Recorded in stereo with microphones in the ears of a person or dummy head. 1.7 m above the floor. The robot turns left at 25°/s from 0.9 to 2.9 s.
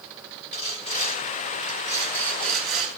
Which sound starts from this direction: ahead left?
Sawing, at 0.5 s.